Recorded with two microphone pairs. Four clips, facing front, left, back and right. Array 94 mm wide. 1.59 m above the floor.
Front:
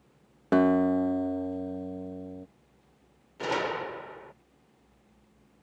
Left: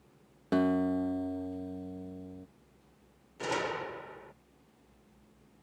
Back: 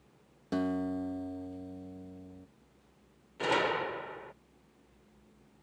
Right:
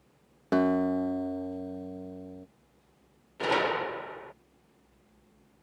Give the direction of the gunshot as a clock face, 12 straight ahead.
2 o'clock.